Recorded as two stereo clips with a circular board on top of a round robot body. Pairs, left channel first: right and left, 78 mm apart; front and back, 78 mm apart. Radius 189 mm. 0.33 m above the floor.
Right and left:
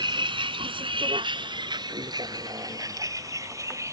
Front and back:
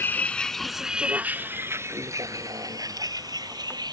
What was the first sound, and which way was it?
A vehicle, 65° left.